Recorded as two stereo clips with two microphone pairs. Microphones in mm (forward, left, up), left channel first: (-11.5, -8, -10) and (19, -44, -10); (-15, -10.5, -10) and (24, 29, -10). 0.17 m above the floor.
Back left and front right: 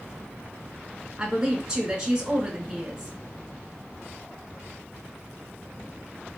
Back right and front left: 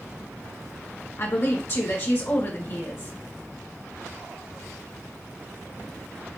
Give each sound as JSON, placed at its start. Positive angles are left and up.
{"t": 1.2, "sound": "a woman speaking", "azimuth_deg": -120, "distance_m": 1.8}